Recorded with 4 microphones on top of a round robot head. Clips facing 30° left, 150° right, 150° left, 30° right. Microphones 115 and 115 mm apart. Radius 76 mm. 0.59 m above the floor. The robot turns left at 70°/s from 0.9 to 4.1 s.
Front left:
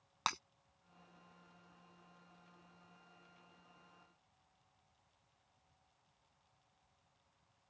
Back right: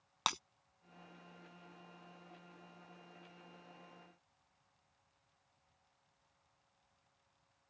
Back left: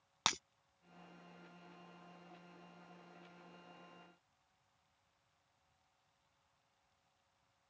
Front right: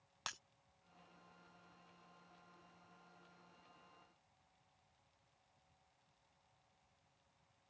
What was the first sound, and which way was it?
Breaking glass, 135° left.